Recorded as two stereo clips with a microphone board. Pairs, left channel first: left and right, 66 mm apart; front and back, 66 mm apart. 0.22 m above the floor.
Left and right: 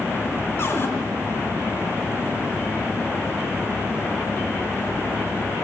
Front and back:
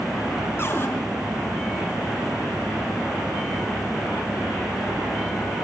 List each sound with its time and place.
0.6 s a cupboard door: 40° left, 2.5 m